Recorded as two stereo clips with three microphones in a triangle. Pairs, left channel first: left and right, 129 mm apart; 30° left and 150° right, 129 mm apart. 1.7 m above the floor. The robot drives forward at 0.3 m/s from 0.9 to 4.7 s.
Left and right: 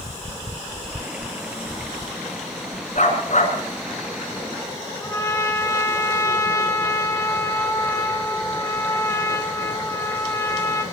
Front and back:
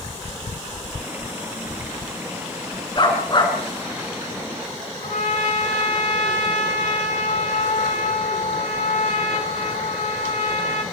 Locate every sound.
3.0 s a dog barking: 80° left, 5 m
5.0 s a trumpet: 25° left, 4 m